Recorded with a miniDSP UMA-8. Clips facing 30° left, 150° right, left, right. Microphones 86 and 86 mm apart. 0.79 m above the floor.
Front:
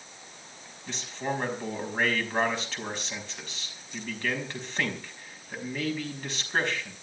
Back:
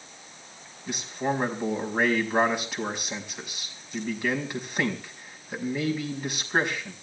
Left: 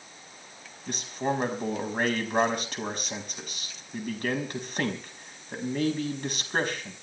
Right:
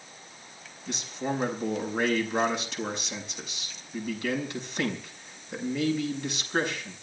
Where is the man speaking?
130° left, 5 m.